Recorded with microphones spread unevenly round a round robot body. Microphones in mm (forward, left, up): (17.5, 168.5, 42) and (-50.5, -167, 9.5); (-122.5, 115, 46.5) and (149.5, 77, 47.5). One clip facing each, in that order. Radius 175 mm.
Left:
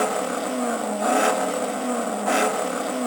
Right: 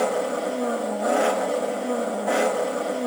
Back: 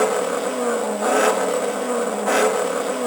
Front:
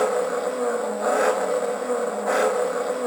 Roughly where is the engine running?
Behind left.